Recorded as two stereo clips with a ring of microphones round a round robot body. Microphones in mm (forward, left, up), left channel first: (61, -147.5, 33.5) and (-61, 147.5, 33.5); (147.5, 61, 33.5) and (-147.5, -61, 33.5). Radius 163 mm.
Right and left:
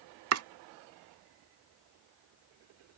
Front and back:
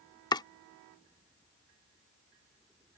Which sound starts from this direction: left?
Chopping, at 0.3 s.